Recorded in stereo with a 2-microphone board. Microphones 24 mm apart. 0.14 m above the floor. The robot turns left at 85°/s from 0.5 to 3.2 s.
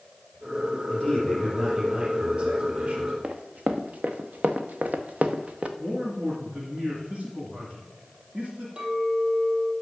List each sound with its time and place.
0.9 s a man speaking: 55° left, 3.5 m; by 3.1 s 135° right, 3.5 m
3.2 s running footsteps: 65° right (ahead or behind), 1.4 m; by 5.7 s 55° right (ahead or behind), 1.2 m
5.8 s a man speaking: 50° right (ahead or behind), 2.5 m
8.8 s a clink: 45° right (ahead or behind), 2.5 m